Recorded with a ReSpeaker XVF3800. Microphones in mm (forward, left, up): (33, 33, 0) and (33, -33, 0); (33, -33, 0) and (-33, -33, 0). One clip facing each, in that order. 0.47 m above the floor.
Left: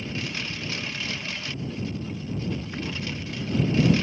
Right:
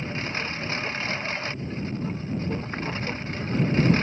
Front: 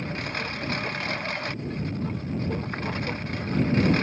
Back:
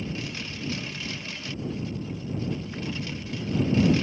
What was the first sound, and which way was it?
A lawn mower, 35° right.